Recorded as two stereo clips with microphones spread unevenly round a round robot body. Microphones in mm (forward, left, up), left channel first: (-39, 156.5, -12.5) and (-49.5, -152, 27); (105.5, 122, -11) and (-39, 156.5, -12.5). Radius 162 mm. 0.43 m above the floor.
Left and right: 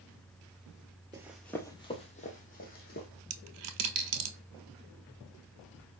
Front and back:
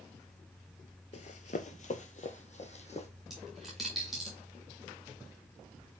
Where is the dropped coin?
105° right, 0.7 m.